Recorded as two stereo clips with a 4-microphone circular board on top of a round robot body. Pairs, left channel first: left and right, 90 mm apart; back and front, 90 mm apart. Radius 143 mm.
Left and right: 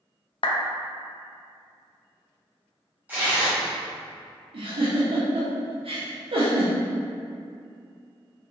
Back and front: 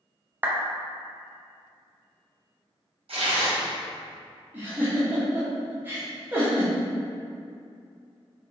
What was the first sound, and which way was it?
A clap, 70° left.